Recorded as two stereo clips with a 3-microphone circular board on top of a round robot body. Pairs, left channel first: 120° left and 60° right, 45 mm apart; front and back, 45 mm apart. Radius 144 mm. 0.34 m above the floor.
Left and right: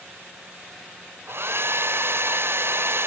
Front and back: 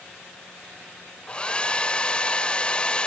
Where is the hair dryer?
65° right.